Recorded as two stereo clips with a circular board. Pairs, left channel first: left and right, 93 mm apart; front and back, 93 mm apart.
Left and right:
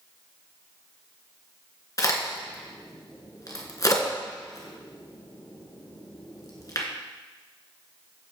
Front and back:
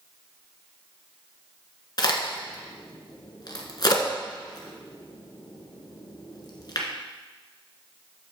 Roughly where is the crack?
Ahead left.